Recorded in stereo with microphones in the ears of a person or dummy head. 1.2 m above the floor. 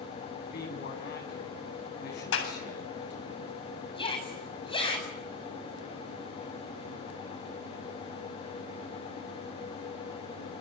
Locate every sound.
0.4 s a man speaking: 55° left (ahead or behind), 9.5 m
2.3 s a clap: 85° left, 8 m
4.0 s a shout: 25° left (ahead or behind), 8 m